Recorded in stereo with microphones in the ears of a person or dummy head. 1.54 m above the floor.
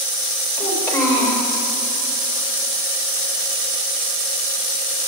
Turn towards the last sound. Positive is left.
turn(degrees=15)  # may be behind; listen again after turning